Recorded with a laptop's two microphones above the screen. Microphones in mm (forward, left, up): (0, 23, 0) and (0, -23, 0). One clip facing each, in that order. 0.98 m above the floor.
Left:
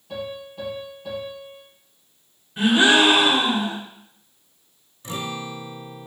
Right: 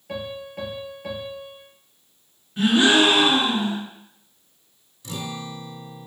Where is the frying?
I don't hear frying.